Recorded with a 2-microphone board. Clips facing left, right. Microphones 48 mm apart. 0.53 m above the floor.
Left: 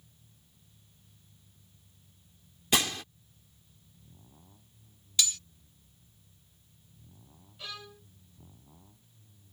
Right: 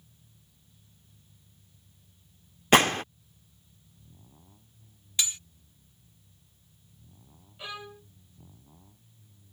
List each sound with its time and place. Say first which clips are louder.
2.7 s a gunshot: right 9 dB; 45° right (ahead or behind)
5.2 s cutlery clinking: left 1 dB; 25° right (ahead or behind)
7.6 s a violin: right 4 dB; 20° right (ahead or behind)